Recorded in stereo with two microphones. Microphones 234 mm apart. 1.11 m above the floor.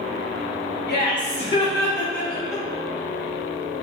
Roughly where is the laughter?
Left.